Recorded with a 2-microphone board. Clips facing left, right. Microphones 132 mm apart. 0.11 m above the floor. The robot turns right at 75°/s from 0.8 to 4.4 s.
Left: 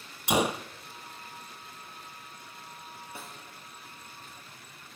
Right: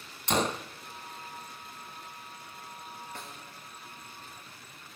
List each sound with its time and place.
0.3 s a gunshot: 10° left (ahead or behind), 0.6 m
3.1 s a snare drum: 10° left (ahead or behind), 2.5 m; by 3.4 s 5° right (ahead or behind), 2.5 m